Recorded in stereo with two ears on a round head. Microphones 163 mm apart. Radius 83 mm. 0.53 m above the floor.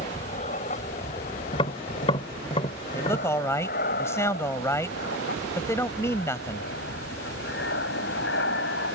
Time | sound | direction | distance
0.0 | an aircraft | 35° left (ahead or behind) | ?
1.5 | tapping | 30° left (ahead or behind) | ?
2.9 | a man speaking | 15° left (ahead or behind) | ?